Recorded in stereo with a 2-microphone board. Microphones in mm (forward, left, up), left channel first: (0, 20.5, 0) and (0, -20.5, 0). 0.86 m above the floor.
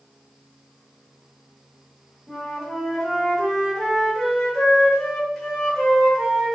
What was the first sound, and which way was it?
A flute, 15° left (ahead or behind).